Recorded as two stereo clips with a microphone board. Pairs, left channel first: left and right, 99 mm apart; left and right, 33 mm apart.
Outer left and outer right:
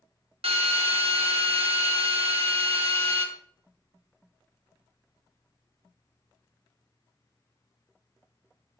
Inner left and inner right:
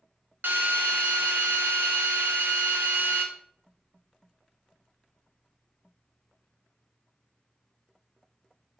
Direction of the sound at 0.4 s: 85° right.